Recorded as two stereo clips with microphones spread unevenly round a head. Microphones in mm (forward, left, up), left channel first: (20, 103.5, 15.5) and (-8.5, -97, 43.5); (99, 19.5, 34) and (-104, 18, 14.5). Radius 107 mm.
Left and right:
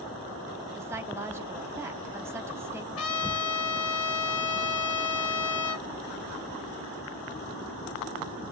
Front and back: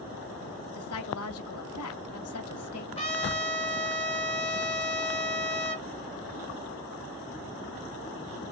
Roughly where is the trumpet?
Ahead left.